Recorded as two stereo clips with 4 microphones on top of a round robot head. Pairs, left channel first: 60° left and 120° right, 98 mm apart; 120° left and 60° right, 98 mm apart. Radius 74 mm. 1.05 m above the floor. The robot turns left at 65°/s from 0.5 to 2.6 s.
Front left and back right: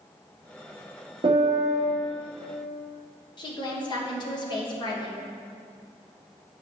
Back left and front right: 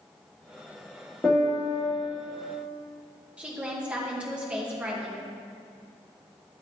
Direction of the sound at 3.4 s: 20° left.